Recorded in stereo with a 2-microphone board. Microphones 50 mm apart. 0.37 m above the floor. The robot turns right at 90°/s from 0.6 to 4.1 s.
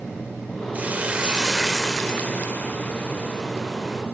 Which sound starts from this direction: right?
A hiss, at 0.7 s.